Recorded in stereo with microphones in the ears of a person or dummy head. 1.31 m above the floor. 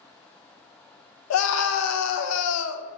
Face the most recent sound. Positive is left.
turn(degrees=75)  # may be behind; listen again after turning